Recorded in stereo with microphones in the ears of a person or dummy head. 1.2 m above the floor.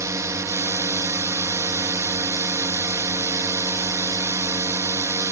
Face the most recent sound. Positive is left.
turn(degrees=-15)  # may be behind; listen again after turning